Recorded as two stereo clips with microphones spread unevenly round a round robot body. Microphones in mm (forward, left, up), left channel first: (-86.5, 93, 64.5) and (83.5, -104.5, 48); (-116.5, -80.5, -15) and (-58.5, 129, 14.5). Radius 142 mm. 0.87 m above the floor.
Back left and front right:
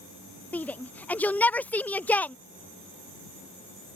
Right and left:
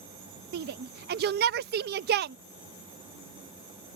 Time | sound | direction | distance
0.5 | a shout | 45° left | ?